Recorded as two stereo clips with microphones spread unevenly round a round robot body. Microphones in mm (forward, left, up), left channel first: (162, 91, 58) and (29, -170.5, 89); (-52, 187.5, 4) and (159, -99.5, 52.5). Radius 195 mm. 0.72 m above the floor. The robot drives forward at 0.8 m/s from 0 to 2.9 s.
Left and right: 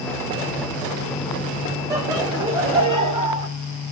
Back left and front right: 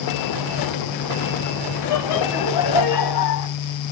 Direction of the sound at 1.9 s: 160° left.